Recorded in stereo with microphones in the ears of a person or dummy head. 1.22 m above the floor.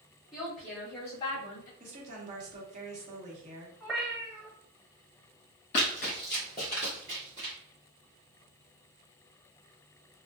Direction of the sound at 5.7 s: 30° left (ahead or behind).